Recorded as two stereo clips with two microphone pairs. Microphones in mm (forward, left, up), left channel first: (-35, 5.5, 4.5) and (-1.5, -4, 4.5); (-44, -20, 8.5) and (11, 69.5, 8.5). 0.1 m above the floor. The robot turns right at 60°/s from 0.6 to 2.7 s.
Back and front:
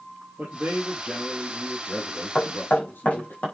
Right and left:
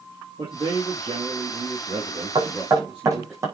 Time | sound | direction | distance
0.4 | a man speaking | 15° left | 4 m
2.4 | knocking | 95° left | 5.5 m